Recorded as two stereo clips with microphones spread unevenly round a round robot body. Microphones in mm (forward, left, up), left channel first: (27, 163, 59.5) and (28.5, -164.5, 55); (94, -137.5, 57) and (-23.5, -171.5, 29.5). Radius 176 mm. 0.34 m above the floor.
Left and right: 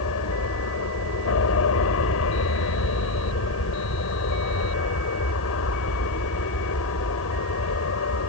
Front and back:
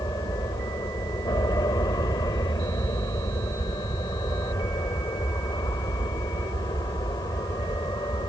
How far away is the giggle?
I don't hear a giggle.